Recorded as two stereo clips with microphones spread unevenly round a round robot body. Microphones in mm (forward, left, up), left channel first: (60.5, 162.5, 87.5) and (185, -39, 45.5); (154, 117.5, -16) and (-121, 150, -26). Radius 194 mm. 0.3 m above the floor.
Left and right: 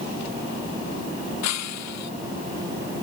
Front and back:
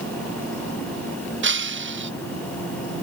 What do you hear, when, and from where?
1.4 s breaking glass: 125° left